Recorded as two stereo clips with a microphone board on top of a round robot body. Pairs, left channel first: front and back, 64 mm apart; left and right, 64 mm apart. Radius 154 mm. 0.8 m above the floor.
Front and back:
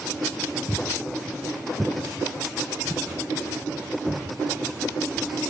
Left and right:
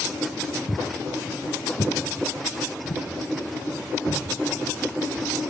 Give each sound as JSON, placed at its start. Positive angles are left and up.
{"t": 0.7, "sound": "footsteps", "azimuth_deg": 65, "distance_m": 1.0}